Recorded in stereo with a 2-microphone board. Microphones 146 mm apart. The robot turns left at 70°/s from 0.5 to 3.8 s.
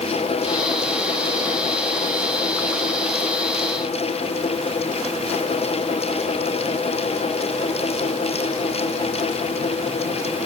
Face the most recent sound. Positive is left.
No sound to turn to.